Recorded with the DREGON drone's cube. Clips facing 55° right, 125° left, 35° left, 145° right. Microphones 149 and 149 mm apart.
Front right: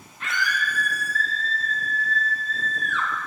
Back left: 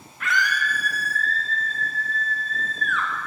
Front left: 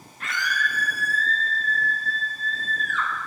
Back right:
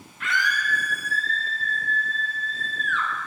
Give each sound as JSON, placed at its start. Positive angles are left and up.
{"t": 0.2, "sound": "a scream", "azimuth_deg": -5, "distance_m": 1.1}